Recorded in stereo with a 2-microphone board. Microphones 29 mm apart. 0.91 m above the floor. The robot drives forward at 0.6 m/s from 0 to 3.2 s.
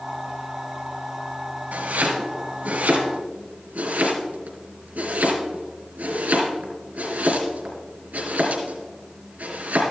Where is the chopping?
80° right, 3.5 m; by 9.8 s 70° right (ahead or behind), 3.5 m.